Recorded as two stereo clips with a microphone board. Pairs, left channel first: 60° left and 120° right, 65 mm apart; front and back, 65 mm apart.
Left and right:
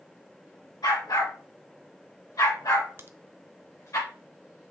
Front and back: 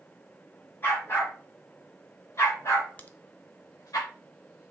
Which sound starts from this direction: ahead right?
A crack, at 3.0 s.